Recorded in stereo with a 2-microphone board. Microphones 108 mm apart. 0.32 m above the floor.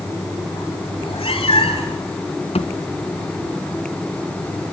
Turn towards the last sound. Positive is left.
turn(degrees=70)  # may be behind; listen again after turning